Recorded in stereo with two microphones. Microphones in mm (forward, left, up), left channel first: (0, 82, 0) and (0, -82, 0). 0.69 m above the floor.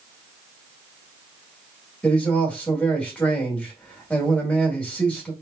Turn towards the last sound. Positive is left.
turn(degrees=10)  # may be behind; listen again after turning